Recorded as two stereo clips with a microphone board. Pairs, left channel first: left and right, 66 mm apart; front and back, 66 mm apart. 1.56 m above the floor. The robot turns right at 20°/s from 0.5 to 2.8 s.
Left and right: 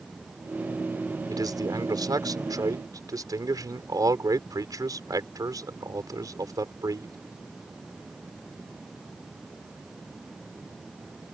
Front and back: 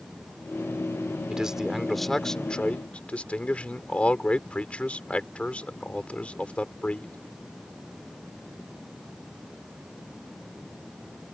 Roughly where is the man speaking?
Right.